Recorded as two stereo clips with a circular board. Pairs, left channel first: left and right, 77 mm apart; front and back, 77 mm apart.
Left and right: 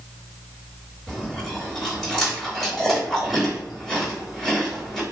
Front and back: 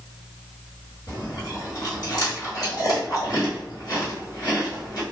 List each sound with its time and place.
1.1 s chewing: 5° right, 1.6 m